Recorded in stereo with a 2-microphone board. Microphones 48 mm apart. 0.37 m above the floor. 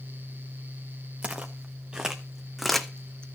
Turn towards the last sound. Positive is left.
turn(degrees=20)  # may be behind; listen again after turning